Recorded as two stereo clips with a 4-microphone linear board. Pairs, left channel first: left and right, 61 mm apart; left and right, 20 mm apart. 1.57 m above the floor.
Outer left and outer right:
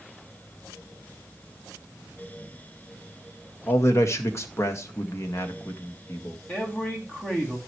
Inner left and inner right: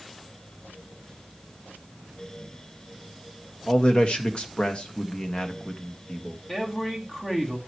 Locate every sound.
3.7 s a man speaking: 50° left (ahead or behind), 1.8 m
6.5 s a man speaking: 30° left (ahead or behind), 3 m